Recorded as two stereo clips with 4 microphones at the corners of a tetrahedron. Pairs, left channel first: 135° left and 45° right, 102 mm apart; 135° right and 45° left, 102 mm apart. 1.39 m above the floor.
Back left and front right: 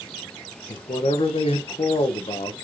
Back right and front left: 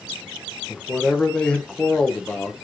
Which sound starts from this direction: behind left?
A man speaking, at 0.7 s.